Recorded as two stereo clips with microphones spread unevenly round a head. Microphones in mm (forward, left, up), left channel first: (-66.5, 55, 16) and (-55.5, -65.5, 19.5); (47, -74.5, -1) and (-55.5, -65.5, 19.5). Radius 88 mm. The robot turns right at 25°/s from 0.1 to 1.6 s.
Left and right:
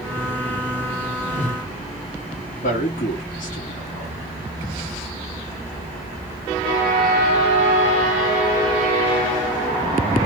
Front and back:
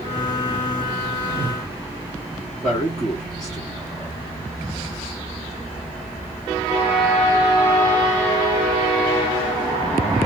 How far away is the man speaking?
About 1.5 m.